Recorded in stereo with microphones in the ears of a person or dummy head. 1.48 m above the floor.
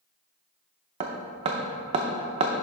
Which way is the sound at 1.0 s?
30° right (ahead or behind).